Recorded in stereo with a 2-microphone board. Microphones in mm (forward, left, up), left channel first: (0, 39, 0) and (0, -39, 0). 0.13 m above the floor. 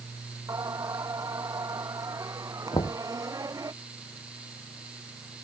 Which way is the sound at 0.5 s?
50° right (ahead or behind).